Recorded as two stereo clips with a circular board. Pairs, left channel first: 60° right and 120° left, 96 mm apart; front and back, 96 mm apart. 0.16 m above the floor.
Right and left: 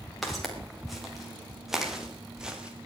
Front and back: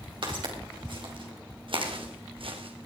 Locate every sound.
0.2 s footsteps: 150° right, 5 m; by 2.9 s 160° right, 2.5 m